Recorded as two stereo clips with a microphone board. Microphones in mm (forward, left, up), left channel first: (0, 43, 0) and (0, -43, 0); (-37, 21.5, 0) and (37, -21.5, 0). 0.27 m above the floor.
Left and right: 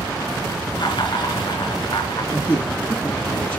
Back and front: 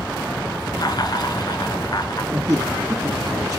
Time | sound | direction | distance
0.8 | laughter | 110° left | 3 m
2.3 | a man speaking | 35° left | 2 m